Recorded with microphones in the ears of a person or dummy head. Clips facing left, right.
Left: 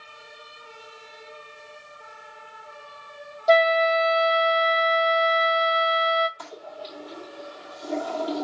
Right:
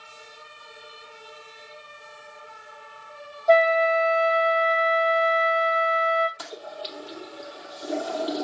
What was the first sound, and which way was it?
A flute, 35° left (ahead or behind).